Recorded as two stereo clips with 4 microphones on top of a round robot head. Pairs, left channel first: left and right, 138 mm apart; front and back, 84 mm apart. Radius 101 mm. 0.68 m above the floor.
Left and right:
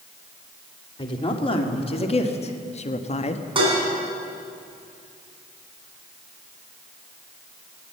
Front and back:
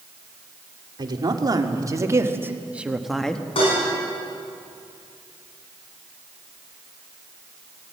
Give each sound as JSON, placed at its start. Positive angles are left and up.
{"t": 1.0, "sound": "a woman speaking", "azimuth_deg": 145, "distance_m": 2.5}
{"t": 3.5, "sound": "dishes clattering", "azimuth_deg": -35, "distance_m": 5.5}